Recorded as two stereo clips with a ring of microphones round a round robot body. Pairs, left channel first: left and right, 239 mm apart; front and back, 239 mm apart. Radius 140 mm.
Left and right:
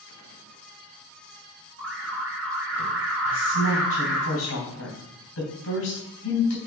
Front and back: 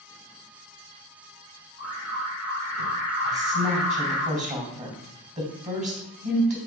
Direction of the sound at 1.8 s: 90° right.